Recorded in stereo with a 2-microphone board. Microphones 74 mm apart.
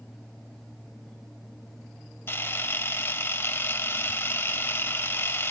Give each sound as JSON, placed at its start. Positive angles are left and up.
{"t": 2.3, "sound": "a camera shutter", "side_deg": 30, "distance_m": 0.6}